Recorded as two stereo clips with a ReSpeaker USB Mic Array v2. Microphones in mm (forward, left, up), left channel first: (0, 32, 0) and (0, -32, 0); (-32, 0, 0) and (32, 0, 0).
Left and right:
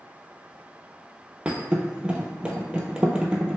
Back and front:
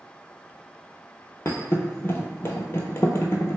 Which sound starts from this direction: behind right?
A thud, at 1.4 s.